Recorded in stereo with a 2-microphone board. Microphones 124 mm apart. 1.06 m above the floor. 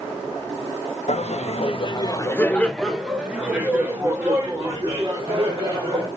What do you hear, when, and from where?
1.1 s laughter: 65° left (ahead or behind), 0.9 m; by 6.1 s 30° right (ahead or behind), 2.5 m